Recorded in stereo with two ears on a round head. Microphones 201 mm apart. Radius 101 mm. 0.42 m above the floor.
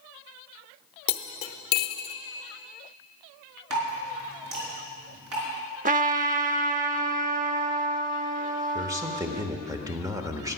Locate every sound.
1.1 s cutlery clinking: 45° left (ahead or behind), 0.9 m
3.7 s dripping: 80° right, 4.5 m
5.8 s a trumpet: 35° right (ahead or behind), 0.7 m
8.8 s a man speaking: 15° right (ahead or behind), 1.1 m